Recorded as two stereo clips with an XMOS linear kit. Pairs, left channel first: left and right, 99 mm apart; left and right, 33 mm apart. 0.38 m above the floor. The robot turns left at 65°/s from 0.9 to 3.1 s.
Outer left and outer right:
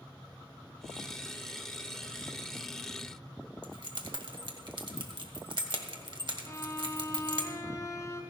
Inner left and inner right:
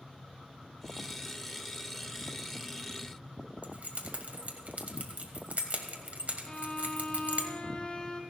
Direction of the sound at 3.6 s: 60° right (ahead or behind).